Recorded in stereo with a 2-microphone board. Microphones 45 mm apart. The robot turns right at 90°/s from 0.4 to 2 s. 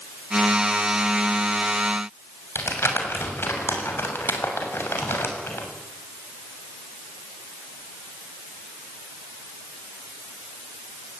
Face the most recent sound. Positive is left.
turn(degrees=70)  # may be behind; listen again after turning